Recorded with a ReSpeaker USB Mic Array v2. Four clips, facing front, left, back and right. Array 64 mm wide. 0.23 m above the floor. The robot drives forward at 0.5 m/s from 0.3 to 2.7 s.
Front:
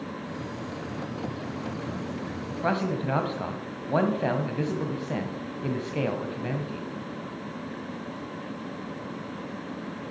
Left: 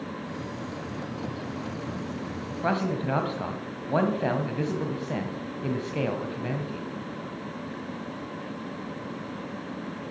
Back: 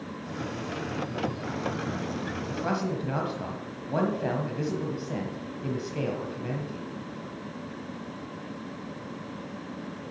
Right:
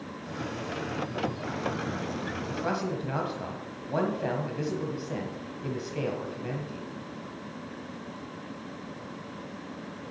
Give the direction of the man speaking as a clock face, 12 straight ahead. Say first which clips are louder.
Left 6 dB, front 4 dB; 11 o'clock.